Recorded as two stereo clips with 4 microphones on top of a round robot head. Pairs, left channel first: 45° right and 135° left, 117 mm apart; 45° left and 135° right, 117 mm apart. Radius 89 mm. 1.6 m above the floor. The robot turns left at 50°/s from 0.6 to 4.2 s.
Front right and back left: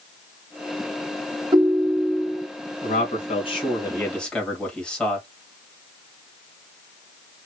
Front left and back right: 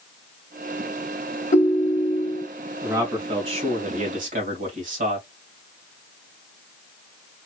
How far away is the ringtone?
About 1.1 m.